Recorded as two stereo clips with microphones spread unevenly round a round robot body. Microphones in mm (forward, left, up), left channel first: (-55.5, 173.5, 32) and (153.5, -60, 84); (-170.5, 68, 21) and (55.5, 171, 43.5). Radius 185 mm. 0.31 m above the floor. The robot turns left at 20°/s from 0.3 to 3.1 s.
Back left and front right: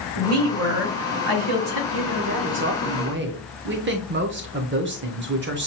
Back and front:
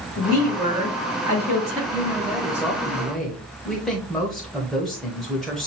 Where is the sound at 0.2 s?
40° right, 2 m; by 1.8 s 70° right, 2 m.